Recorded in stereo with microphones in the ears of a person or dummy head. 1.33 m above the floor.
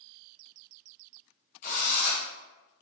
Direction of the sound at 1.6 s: 40° left (ahead or behind).